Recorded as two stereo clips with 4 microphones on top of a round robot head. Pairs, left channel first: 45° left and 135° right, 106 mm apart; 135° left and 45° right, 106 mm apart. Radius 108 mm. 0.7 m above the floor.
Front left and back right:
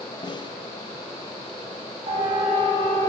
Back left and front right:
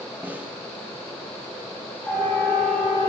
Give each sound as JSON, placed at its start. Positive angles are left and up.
{"t": 0.2, "sound": "a snare drum", "azimuth_deg": 25, "distance_m": 1.4}
{"t": 2.1, "sound": "a siren", "azimuth_deg": -150, "distance_m": 8.0}